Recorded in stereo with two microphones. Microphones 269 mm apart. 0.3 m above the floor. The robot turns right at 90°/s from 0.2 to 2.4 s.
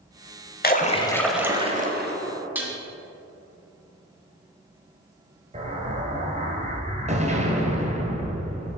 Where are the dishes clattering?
5° right (ahead or behind), 1.3 m.